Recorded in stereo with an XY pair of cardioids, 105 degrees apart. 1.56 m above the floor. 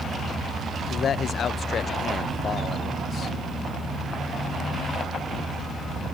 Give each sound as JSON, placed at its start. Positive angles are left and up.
{"t": 0.9, "sound": "a man speaking", "azimuth_deg": 50, "distance_m": 0.9}